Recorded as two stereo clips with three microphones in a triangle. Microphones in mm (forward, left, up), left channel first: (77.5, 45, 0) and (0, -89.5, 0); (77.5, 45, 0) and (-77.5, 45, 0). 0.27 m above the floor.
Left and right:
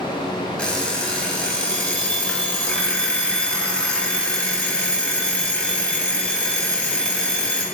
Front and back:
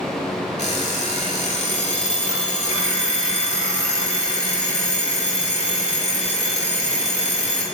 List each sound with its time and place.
0.6 s an alarm clock: 20° right, 0.7 m